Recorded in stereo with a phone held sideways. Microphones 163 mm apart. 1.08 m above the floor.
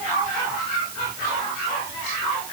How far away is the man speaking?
No man speaking in this recording.